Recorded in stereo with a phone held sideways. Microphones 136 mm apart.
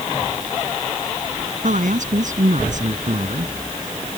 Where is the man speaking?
70° right (ahead or behind).